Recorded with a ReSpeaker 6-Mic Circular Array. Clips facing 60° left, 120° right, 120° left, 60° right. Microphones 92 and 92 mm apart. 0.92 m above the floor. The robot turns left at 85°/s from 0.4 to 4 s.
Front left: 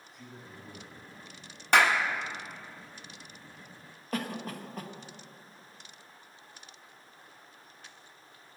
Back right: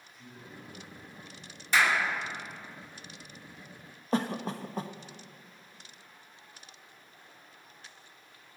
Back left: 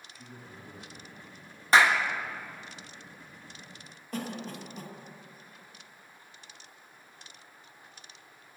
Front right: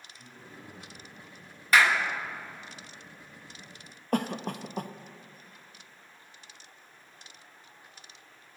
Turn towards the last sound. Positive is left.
turn(degrees=-65)